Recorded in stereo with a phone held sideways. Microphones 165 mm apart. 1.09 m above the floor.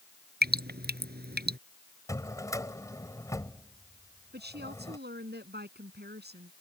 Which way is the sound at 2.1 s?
20° left (ahead or behind).